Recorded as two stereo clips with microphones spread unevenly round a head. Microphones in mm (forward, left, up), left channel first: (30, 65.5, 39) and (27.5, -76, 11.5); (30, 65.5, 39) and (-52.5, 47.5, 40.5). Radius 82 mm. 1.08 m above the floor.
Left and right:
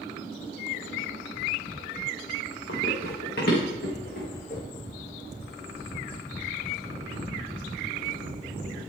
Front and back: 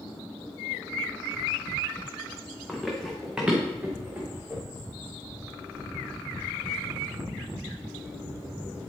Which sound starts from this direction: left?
Running footsteps, at 2.7 s.